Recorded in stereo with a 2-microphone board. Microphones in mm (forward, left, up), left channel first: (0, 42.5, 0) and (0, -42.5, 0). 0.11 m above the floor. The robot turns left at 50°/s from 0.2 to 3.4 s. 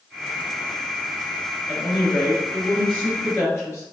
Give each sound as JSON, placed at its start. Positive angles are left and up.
{"t": 1.7, "sound": "a woman speaking", "azimuth_deg": -160, "distance_m": 2.0}